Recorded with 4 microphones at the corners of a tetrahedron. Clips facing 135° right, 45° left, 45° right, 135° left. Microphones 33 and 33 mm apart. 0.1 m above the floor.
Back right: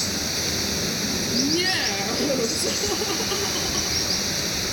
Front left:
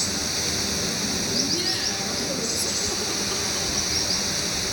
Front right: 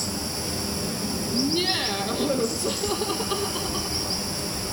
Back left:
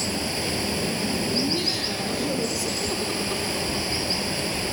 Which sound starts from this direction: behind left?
Running water, at 0.0 s.